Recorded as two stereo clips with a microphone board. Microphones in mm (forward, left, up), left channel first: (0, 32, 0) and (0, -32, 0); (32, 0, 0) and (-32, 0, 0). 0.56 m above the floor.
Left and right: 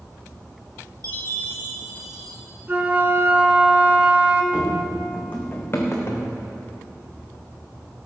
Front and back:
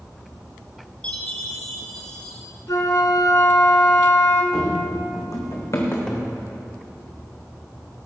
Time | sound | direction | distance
1.0 | a chime | 75° right | 3 m
2.7 | a flute | 25° right | 1.4 m
4.5 | running footsteps | 15° right | 1.8 m
6.1 | a cupboard door | 75° left | 1.6 m